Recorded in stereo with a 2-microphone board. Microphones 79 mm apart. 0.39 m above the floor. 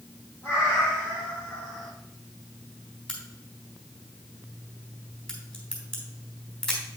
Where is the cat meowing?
35° left (ahead or behind), 4 m; by 1.9 s 10° left (ahead or behind), 2.5 m.